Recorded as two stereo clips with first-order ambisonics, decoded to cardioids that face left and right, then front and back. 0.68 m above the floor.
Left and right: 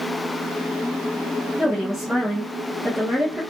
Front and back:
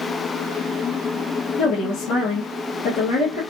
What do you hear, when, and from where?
1.6 s a woman speaking: straight ahead, 1.2 m